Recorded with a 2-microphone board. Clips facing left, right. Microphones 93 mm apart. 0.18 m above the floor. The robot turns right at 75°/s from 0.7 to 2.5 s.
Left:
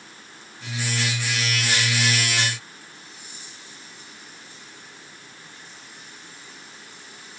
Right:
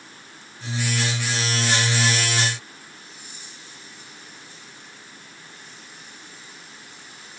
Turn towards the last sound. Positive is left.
No sound to turn to.